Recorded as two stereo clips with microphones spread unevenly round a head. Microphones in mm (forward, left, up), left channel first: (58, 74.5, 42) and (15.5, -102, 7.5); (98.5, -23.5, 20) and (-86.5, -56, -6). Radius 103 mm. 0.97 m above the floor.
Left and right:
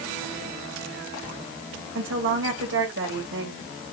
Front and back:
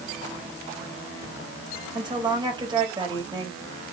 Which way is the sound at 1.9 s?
105° right.